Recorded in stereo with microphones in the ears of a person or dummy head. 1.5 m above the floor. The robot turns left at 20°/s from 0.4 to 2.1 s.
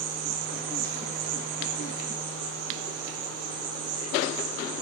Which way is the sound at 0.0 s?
105° right.